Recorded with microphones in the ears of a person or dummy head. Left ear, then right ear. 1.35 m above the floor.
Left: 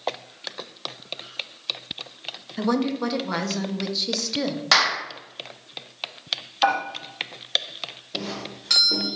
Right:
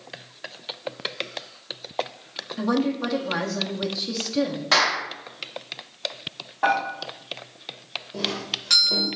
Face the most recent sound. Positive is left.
turn(degrees=0)  # may be behind; listen again after turning